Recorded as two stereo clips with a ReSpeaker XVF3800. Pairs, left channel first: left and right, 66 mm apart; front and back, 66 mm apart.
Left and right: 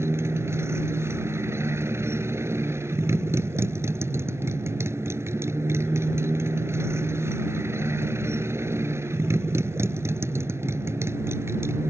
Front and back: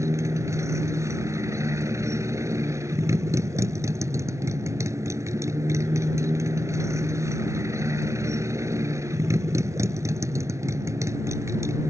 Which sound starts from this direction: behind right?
A motorcycle, at 0.0 s.